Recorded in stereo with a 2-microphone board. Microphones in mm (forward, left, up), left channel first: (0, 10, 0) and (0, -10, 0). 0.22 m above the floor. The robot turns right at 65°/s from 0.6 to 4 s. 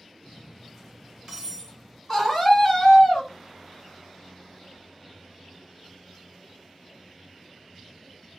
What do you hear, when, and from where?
0.2 s cutlery clinking: centre (ahead or behind), 1.3 m; by 2.0 s 55° right (ahead or behind), 1.3 m
2.1 s a scream: 10° left, 2.0 m; by 3.3 s 90° left, 2.0 m